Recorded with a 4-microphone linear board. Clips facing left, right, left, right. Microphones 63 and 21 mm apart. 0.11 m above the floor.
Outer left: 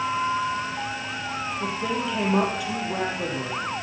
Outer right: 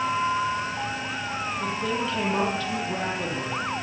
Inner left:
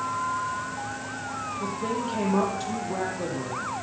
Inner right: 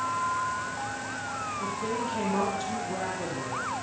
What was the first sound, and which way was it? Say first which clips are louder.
A woman speaking: even, inner left 3 dB; 10° left (ahead or behind).